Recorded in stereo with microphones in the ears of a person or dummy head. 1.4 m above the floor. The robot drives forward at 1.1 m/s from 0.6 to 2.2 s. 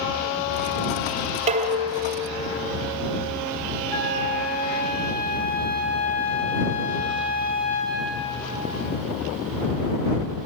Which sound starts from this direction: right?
Dishes clattering, at 1.5 s.